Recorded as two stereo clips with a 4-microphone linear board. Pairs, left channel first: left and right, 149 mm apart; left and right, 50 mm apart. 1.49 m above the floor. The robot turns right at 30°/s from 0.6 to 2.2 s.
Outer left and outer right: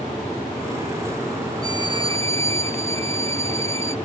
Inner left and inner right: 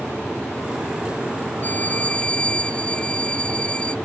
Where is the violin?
35° left (ahead or behind); by 4.0 s 20° left (ahead or behind).